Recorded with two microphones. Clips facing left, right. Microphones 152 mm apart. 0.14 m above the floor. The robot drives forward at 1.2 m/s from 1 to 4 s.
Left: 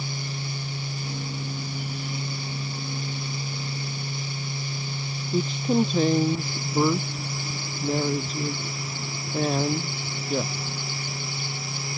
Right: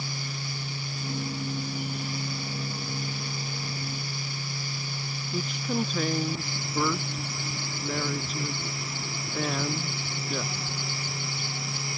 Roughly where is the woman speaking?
Left.